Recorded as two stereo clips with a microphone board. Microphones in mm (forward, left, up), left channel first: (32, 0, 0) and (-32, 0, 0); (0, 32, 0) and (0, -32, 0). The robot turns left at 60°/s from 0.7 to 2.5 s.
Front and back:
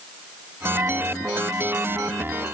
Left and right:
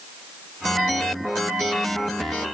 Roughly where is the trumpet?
I don't hear a trumpet.